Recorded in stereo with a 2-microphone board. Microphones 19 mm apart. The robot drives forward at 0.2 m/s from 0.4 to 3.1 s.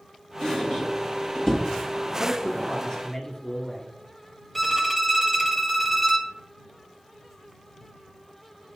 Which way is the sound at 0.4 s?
30° left (ahead or behind).